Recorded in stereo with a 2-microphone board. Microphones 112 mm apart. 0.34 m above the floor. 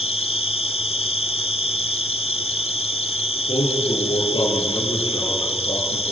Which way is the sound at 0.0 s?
60° left (ahead or behind).